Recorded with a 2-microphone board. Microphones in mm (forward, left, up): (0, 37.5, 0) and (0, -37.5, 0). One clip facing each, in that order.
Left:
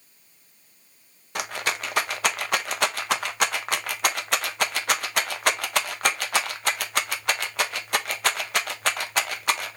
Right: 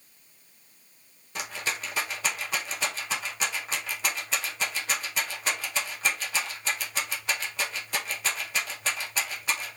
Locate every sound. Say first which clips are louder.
1.4 s a rattle: left 5 dB; 65° left (ahead or behind), 0.6 m